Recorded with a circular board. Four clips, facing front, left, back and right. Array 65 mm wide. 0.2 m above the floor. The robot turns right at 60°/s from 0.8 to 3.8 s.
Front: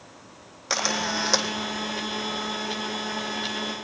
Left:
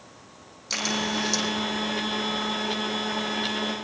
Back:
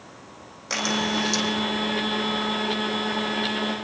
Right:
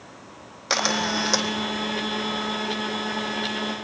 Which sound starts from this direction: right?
A camera shutter, at 0.7 s.